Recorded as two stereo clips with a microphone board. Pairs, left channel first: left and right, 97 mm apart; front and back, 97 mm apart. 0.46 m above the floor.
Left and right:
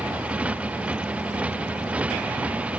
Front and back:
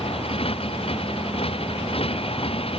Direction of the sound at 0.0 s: 15° right.